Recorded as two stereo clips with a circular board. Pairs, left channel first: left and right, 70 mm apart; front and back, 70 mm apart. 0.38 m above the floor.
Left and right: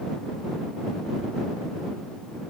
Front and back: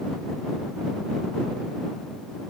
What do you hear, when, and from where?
Only background noise.